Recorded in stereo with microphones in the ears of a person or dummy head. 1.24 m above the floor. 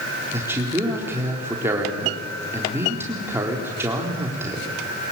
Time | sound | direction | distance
0.3 | a man speaking | 10° right (ahead or behind) | 3.5 m